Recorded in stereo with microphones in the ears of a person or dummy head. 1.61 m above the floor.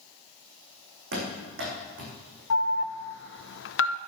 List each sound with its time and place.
1.1 s running footsteps: 70° right (ahead or behind), 6 m
2.5 s an alarm: 55° left (ahead or behind), 0.6 m